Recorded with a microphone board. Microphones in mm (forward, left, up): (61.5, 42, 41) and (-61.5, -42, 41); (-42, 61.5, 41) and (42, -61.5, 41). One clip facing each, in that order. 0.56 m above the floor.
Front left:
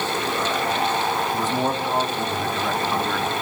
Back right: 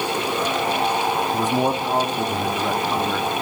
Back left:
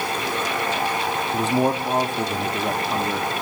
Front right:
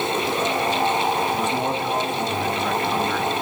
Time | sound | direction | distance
1.3 | a man speaking | 150° left | 1.4 m